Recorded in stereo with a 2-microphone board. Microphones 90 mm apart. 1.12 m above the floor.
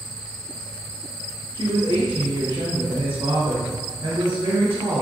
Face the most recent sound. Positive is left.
turn(degrees=-75)  # may be behind; listen again after turning